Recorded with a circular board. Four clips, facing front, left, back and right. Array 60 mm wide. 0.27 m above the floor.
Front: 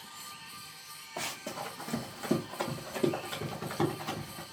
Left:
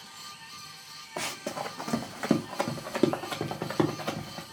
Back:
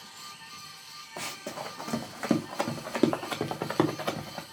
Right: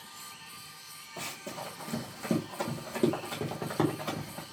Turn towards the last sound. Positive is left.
turn(degrees=170)